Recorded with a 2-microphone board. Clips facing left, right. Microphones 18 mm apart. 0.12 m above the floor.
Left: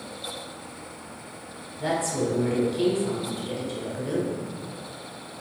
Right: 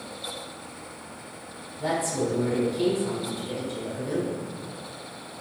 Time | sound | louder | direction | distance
1.8 | a woman speaking | even | 25° left (ahead or behind) | 1.5 m